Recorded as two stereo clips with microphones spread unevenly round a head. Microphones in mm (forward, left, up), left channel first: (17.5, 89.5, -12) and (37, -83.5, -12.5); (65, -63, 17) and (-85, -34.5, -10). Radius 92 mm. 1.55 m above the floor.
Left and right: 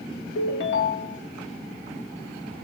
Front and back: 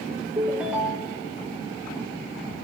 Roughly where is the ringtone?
Left.